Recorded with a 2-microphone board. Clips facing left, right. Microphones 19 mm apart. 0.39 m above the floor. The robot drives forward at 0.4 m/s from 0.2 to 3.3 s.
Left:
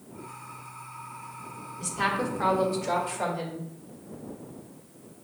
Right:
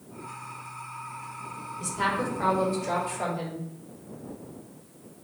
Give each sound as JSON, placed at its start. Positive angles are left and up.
{"t": 1.8, "sound": "a woman speaking", "side_deg": 10, "distance_m": 0.9}